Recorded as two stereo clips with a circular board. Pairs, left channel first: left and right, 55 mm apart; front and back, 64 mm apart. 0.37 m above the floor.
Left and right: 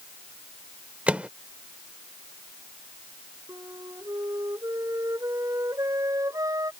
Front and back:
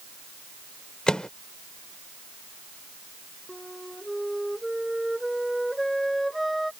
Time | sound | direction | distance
1.1 | a microwave | 65° right | ?
3.5 | a flute | 90° right | ?